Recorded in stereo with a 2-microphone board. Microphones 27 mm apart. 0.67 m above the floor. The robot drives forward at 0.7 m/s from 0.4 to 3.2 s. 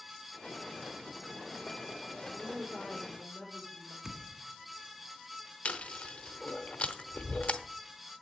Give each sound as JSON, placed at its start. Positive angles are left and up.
{"t": 2.2, "sound": "a woman speaking", "side_deg": 20, "distance_m": 2.0}
{"t": 4.0, "sound": "a thud", "side_deg": -20, "distance_m": 1.7}
{"t": 5.7, "sound": "chewing", "side_deg": 80, "distance_m": 0.8}